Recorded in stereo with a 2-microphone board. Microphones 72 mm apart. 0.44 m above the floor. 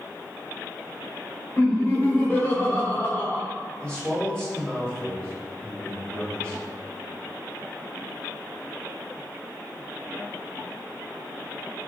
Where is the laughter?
30° left (ahead or behind), 0.9 m.